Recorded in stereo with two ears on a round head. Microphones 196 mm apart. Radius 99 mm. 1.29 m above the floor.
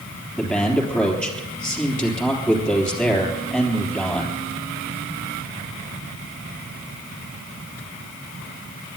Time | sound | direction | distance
0.4 | a man speaking | 5° left (ahead or behind) | 3.5 m